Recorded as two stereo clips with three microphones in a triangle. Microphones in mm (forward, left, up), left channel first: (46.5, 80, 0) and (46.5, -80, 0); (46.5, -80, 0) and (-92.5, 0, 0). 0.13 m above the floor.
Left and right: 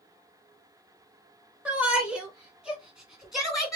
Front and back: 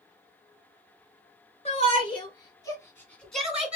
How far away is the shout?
About 2.5 m.